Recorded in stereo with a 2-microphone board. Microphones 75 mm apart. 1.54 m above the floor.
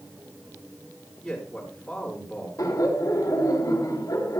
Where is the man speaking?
5° left (ahead or behind), 6 m.